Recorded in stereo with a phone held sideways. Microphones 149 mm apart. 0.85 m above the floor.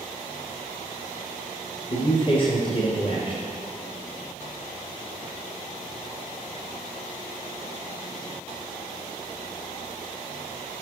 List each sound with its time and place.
1.9 s a man speaking: 35° left (ahead or behind), 0.8 m